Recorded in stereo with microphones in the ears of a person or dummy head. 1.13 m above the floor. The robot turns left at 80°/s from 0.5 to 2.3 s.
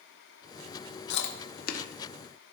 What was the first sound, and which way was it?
Chewing, 55° left (ahead or behind).